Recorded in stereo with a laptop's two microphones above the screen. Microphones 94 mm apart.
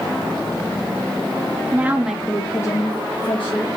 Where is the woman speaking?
20° right (ahead or behind), 0.9 m; by 3.7 s 65° left (ahead or behind), 1.0 m.